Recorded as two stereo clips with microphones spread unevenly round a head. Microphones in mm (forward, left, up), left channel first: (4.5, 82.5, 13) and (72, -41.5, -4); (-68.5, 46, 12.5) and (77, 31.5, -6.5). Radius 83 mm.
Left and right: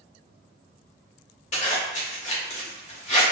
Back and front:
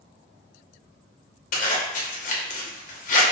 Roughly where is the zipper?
Behind.